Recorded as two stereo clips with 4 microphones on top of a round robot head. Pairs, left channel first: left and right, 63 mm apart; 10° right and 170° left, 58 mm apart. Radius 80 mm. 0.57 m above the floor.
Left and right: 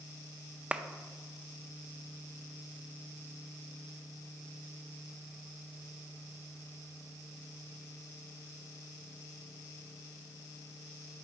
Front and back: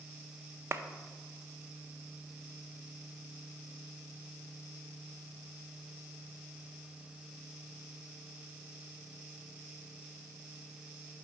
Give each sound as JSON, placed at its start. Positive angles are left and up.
{"t": 0.7, "sound": "a clap", "azimuth_deg": -160, "distance_m": 0.5}